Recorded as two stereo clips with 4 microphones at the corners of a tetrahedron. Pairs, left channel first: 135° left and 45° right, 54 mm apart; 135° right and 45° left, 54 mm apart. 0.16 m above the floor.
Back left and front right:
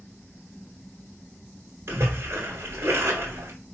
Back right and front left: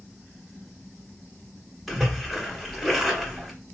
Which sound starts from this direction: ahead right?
A splash, at 1.9 s.